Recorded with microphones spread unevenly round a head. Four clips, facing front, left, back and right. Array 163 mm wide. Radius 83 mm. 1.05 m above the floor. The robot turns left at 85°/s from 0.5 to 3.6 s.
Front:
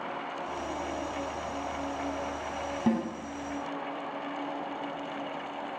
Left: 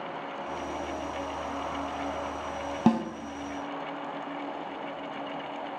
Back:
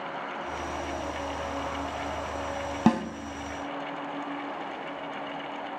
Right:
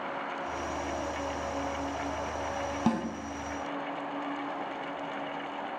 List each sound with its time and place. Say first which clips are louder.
2.9 s a snare drum: left 6 dB, back 4 dB; 145° left, 1.0 m; by 3.0 s 130° left, 1.0 m